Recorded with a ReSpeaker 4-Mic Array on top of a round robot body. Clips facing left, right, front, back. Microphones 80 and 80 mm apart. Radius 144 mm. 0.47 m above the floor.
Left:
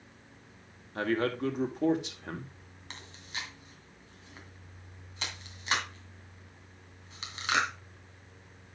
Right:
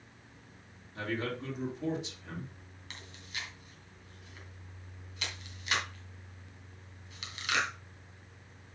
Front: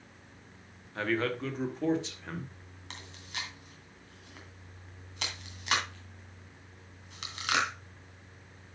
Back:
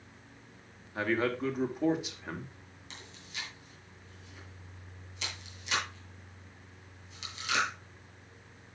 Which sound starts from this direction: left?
A man speaking, at 0.9 s.